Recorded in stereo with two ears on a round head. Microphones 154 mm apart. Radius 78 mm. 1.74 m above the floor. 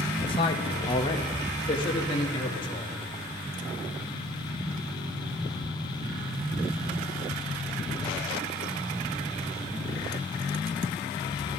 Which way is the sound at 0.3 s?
30° left (ahead or behind).